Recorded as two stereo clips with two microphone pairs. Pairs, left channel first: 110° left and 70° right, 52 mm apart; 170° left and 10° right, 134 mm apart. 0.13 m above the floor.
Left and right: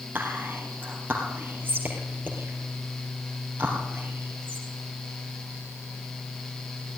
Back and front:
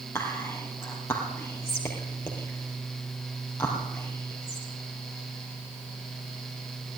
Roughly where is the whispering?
Behind right.